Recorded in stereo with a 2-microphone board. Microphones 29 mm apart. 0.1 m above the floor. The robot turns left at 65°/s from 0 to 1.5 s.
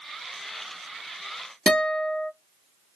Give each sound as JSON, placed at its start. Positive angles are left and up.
{"t": 1.7, "sound": "a guitar", "side_deg": 40, "distance_m": 1.0}